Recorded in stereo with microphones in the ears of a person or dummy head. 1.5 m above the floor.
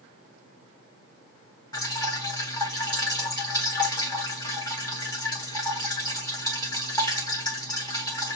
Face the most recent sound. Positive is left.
turn(degrees=25)  # may be behind; listen again after turning